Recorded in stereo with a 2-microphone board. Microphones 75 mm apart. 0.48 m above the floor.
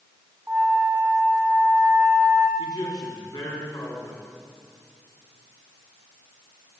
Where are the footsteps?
I don't hear footsteps.